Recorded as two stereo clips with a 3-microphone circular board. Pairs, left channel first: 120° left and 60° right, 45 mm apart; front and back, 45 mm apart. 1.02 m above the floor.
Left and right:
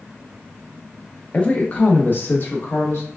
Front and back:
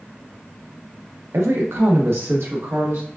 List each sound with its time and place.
1.3 s a woman speaking: 175° right, 0.8 m; by 3.1 s 150° left, 1.4 m